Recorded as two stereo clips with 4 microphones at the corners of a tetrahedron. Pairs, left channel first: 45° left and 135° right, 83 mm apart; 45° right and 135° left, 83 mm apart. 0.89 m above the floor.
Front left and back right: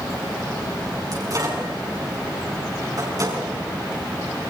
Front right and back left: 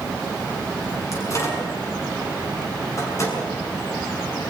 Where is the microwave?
95° right, 6.5 m.